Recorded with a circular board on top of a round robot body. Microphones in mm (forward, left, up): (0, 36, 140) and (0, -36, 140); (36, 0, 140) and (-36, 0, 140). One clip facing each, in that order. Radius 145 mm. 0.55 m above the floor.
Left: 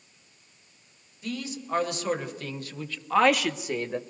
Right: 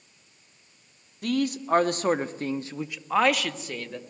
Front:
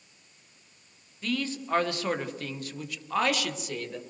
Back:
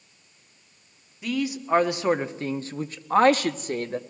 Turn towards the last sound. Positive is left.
turn(degrees=150)